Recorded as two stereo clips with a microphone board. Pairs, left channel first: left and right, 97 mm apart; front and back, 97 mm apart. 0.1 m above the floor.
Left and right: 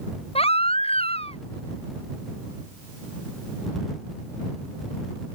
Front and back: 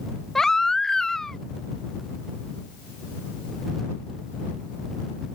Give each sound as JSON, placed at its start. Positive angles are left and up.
{"t": 0.3, "sound": "a baby crying", "azimuth_deg": 85}